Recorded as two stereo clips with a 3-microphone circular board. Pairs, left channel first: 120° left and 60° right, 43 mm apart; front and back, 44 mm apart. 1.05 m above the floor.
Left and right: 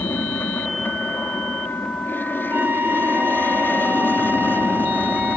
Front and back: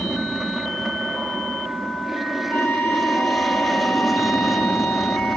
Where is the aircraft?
100° left; by 5.4 s 90° left.